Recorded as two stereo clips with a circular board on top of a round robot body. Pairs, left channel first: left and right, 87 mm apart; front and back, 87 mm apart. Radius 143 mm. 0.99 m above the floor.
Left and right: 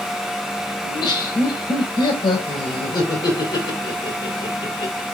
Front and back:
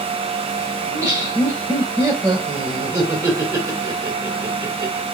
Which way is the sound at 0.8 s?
130° left.